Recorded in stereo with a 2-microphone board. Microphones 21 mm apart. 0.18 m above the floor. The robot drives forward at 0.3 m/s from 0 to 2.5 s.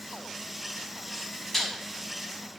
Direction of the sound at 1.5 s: 5° left (ahead or behind).